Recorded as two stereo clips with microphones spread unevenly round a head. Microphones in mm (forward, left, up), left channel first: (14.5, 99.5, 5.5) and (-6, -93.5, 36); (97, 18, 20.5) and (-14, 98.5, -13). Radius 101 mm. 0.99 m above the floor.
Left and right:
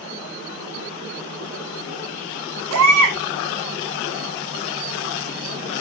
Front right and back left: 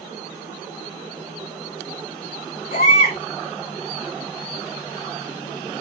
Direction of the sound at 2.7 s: 90° right.